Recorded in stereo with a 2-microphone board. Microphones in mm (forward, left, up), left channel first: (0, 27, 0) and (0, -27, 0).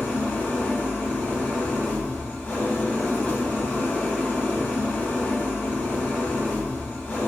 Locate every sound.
0.0 s an engine running: 35° left (ahead or behind), 0.9 m